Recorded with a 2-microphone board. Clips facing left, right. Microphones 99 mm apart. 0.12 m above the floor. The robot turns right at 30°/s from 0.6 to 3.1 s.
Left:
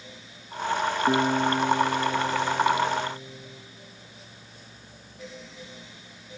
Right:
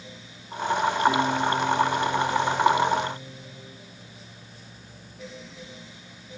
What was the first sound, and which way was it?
A guitar, 85° left.